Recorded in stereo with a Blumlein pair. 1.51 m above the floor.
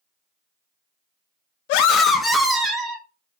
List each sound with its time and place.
1.7 s a scream: 45° left, 0.5 m; by 3.0 s 25° right, 1.0 m